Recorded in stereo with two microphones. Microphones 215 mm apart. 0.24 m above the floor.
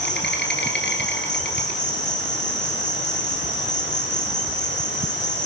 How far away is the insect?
About 3 m.